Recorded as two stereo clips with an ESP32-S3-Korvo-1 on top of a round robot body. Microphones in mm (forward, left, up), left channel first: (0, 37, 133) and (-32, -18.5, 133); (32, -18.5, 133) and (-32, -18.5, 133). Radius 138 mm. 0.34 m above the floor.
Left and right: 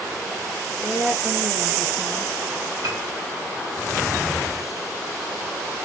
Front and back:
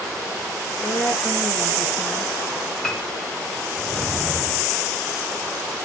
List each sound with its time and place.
0.8 s a woman speaking: 55° right, 4.5 m; by 2.3 s 65° right, 4 m
2.8 s a piano: 80° right, 1.7 m